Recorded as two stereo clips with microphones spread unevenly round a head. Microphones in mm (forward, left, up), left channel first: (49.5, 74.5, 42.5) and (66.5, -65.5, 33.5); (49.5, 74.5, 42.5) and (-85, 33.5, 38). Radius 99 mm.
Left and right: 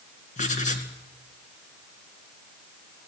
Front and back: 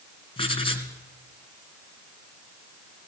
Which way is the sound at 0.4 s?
65° left.